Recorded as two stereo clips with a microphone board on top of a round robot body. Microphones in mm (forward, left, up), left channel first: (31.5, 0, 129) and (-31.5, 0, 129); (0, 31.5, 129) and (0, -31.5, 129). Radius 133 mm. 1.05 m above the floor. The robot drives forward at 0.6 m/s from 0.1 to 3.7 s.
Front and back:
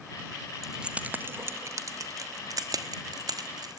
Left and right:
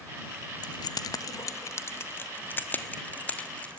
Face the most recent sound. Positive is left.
turn(degrees=160)